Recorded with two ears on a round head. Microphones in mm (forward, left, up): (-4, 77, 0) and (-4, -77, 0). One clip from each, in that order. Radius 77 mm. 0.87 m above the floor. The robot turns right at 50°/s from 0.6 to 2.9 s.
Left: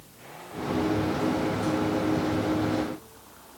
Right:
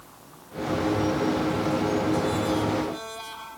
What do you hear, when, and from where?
Only background noise.